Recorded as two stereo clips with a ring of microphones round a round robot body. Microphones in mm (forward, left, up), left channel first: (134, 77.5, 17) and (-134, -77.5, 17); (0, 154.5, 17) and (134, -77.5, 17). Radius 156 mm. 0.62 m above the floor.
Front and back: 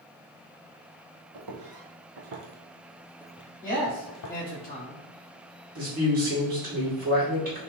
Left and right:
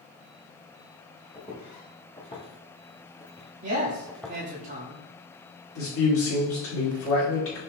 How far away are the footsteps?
About 1.2 m.